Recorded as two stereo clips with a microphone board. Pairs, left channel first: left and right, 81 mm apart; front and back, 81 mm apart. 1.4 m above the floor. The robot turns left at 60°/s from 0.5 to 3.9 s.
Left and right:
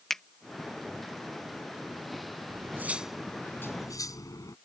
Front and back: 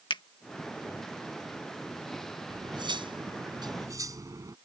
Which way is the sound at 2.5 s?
140° right.